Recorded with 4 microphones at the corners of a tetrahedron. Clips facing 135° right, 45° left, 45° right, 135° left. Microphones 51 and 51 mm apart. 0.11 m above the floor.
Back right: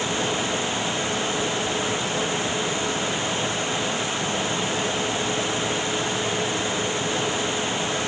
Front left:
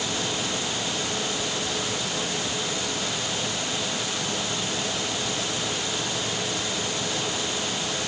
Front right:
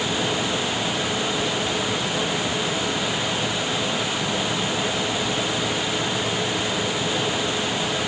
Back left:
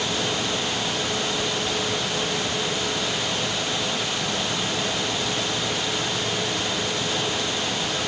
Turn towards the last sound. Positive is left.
No sound to turn to.